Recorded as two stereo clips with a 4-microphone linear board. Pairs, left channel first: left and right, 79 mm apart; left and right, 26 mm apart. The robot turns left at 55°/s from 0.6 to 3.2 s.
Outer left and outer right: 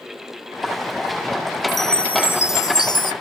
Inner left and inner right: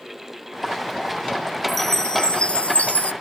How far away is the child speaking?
No child speaking in this recording.